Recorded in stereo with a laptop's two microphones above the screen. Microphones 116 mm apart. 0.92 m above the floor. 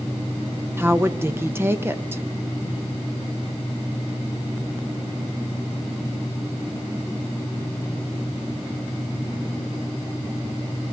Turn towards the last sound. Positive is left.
turn(degrees=-20)  # may be behind; listen again after turning